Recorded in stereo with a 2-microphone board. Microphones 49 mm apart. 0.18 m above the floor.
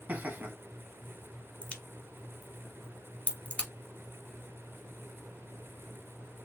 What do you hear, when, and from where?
0.1 s laughter: 35° right (ahead or behind), 1.3 m
1.6 s a crack: 30° left (ahead or behind), 0.9 m